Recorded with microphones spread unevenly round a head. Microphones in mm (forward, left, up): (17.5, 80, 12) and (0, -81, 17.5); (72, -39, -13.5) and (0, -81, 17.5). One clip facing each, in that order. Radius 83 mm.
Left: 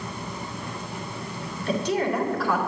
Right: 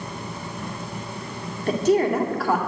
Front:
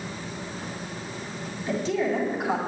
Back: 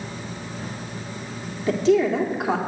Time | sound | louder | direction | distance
1.7 | a woman speaking | right 5 dB, back 7 dB | 145° right | 2 m